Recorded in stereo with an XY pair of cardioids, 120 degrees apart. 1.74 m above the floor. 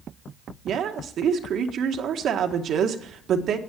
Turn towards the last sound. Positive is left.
turn(degrees=-60)